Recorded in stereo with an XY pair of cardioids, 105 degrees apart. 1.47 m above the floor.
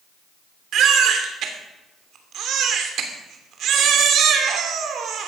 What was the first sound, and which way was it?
A baby crying, 70° right.